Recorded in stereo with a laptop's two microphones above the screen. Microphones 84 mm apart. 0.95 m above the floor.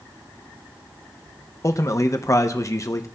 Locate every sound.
1.6 s a man speaking: 40° left (ahead or behind), 0.7 m